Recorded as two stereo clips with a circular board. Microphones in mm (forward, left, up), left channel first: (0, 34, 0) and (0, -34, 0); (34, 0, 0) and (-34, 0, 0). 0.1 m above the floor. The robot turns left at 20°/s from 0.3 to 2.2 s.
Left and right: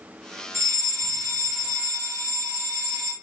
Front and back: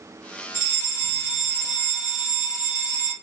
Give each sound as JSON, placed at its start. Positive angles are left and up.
{"t": 0.5, "sound": "a fire alarm", "azimuth_deg": 5, "distance_m": 3.0}